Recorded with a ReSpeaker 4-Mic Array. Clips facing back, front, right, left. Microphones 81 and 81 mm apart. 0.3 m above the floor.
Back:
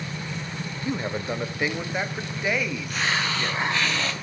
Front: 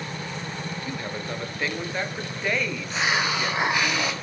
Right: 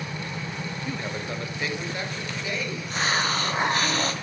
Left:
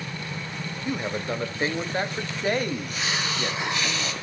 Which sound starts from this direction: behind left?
A man speaking, at 0.8 s.